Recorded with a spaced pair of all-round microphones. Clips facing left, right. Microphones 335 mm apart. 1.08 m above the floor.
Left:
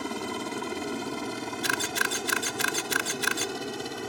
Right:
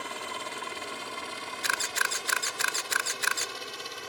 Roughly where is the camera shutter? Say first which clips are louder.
Left 8 dB; left.